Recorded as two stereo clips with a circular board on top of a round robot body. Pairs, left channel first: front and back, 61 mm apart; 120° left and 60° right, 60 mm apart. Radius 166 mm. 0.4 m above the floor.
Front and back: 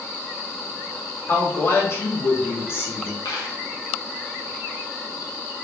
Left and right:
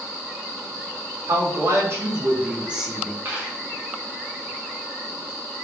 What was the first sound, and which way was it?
A woman speaking, 45° right.